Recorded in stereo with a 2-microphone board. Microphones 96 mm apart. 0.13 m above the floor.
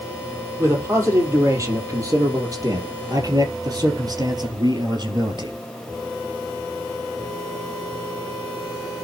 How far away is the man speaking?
About 4.5 m.